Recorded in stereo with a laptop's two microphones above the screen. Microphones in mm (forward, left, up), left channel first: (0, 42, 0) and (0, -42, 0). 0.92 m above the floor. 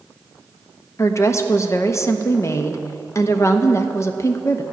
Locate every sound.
1.0 s a woman speaking: 35° left (ahead or behind), 0.8 m